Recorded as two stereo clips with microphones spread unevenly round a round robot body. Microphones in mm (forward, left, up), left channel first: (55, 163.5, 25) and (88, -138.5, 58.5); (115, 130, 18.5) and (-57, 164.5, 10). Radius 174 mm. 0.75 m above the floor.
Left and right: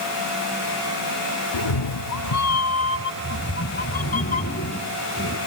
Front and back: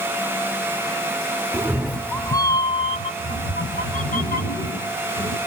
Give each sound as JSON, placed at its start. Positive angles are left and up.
{"t": 1.5, "sound": "a cat meowing", "azimuth_deg": 95, "distance_m": 0.8}